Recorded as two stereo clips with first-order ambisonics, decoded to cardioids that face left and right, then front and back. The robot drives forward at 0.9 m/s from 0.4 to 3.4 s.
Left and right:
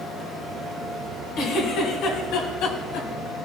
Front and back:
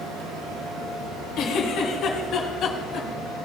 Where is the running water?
175° right, 4 m; by 3.5 s straight behind, 6.5 m.